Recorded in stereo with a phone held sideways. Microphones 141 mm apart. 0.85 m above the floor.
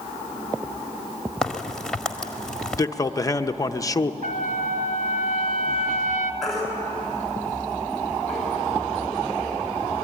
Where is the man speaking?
25° left (ahead or behind), 0.7 m.